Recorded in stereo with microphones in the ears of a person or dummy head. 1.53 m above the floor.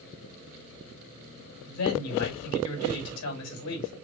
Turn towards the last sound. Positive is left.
turn(degrees=85)